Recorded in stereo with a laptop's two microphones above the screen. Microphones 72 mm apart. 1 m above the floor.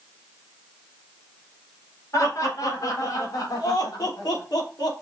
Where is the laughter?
50° left (ahead or behind), 4 m; by 4.9 s 70° left (ahead or behind), 3 m.